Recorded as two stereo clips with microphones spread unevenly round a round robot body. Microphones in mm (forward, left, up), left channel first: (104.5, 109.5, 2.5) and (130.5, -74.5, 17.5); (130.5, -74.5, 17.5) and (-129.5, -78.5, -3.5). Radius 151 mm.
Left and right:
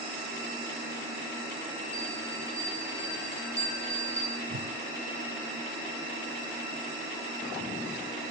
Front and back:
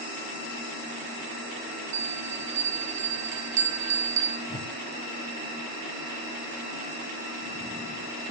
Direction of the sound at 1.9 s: 165° left.